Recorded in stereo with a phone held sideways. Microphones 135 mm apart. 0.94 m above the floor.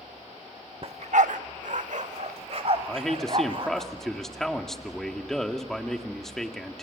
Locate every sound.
0.8 s a dog barking: 45° right (ahead or behind), 1.0 m; by 3.9 s 40° right (ahead or behind), 3.5 m
2.9 s a man speaking: 5° left (ahead or behind), 2.0 m